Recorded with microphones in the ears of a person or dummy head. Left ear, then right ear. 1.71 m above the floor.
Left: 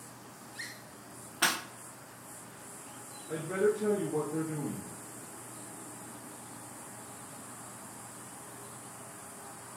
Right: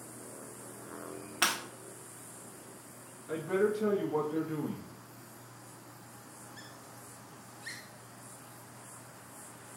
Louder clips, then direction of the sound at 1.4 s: Left 1 dB; 30° right (ahead or behind).